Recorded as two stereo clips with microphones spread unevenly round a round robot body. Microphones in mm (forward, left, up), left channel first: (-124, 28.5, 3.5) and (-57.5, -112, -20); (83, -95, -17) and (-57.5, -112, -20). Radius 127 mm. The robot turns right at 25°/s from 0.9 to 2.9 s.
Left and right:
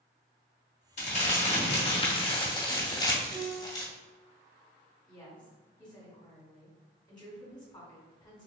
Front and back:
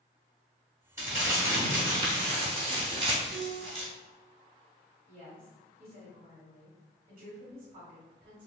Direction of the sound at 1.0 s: 130° left.